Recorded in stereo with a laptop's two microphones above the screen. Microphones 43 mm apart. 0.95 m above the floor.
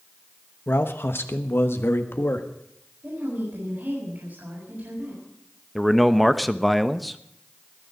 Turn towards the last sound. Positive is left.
turn(degrees=0)  # may be behind; listen again after turning